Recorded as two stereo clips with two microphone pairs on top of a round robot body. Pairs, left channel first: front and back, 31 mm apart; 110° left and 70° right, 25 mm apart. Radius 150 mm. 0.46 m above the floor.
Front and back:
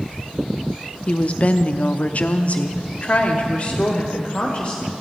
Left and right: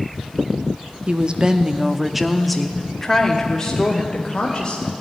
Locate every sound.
1.1 s a woman speaking: 30° right, 0.9 m; by 4.9 s 60° left, 2 m